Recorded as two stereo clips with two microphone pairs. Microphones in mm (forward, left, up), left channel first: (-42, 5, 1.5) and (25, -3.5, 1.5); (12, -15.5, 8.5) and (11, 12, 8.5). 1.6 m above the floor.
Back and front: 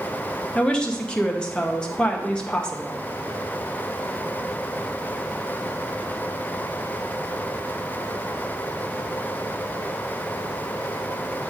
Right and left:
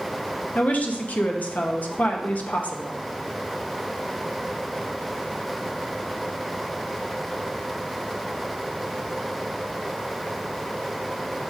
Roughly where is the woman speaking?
Right.